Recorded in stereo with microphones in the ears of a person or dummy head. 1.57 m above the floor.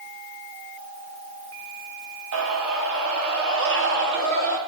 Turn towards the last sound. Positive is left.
turn(degrees=-65)  # may be behind; listen again after turning